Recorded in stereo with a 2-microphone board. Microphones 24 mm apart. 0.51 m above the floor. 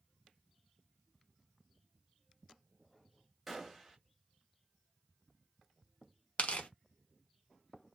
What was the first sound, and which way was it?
A gunshot, 5° right (ahead or behind).